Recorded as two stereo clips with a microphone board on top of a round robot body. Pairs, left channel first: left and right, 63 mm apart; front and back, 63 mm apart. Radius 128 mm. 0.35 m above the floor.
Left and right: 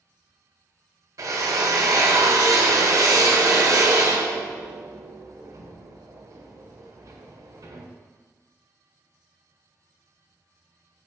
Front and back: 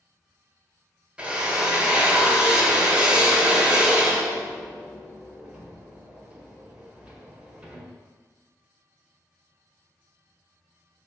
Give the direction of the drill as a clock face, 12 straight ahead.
4 o'clock.